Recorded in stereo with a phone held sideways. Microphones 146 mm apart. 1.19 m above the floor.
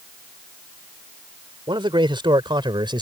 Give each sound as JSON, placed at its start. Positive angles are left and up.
{"t": 1.7, "sound": "a man speaking", "side_deg": -35}